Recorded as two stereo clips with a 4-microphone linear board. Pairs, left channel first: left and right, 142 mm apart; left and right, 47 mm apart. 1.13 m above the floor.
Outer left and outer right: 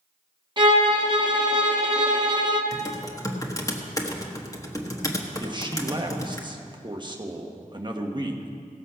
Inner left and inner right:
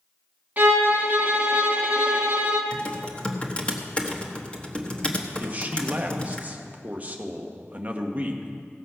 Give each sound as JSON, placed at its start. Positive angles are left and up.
{"t": 0.6, "sound": "a violin", "side_deg": -35, "distance_m": 1.2}
{"t": 2.7, "sound": "typing on a keyboard", "side_deg": 25, "distance_m": 1.2}
{"t": 5.4, "sound": "a man speaking", "side_deg": -35, "distance_m": 1.2}